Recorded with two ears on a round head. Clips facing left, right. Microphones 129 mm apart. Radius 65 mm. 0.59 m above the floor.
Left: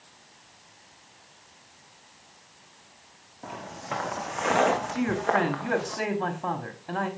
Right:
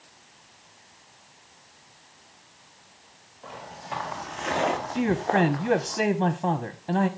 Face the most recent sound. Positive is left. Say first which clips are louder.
# right 2 dB
turn(degrees=-25)  # may be behind; listen again after turning